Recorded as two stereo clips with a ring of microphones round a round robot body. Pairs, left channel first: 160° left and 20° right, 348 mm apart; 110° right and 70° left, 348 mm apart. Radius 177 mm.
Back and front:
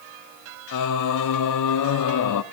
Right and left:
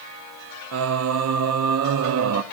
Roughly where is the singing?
Behind left.